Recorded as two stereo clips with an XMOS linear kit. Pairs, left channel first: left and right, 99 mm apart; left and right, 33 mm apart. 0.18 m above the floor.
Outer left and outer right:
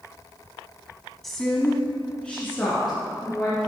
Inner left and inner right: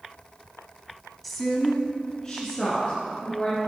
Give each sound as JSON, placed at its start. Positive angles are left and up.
{"t": 1.2, "sound": "a woman speaking", "side_deg": 0, "distance_m": 1.1}